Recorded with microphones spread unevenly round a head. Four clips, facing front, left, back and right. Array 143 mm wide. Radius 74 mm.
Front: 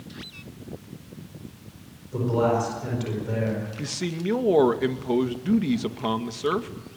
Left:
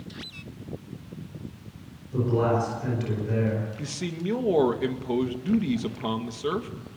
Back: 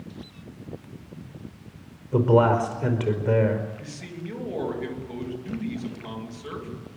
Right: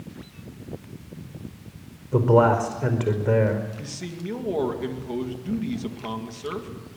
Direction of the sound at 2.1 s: 125° right.